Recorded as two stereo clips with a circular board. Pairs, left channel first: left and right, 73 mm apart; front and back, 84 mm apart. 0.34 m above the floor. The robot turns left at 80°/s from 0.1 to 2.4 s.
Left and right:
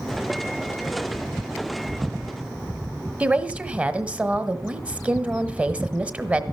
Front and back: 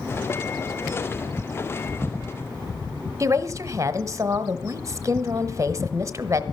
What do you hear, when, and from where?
3.2 s a woman speaking: 155° right, 1.1 m